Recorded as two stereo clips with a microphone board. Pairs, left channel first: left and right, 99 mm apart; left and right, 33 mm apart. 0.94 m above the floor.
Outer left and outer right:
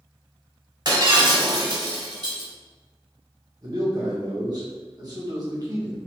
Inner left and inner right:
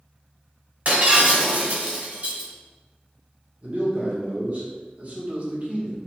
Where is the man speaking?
40° right (ahead or behind), 1.1 m.